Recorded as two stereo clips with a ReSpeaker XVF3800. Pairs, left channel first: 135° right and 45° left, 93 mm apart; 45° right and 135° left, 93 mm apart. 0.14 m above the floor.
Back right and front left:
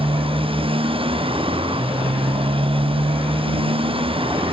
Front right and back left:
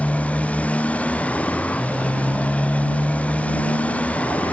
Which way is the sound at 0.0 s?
30° left.